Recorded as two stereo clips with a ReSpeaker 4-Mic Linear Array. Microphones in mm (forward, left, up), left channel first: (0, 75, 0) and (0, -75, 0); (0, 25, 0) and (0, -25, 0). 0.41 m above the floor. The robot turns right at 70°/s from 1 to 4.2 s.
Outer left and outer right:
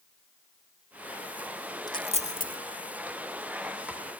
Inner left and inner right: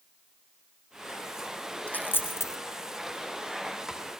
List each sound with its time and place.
1.9 s a dropped coin: 30° left (ahead or behind), 0.8 m; by 2.6 s 75° left (ahead or behind), 0.8 m